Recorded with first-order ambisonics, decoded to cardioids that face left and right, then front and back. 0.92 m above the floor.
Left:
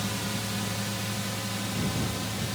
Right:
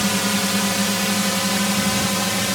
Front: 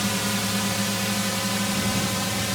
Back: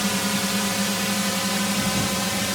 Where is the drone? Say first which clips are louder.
Right 12 dB, back 1 dB; 100° right; by 2.5 s 105° right.